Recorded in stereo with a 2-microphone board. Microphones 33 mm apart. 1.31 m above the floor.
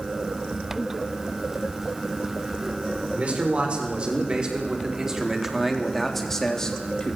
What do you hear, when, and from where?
3.1 s a man speaking: 40° right (ahead or behind), 6 m; by 7.2 s 30° left (ahead or behind), 3.5 m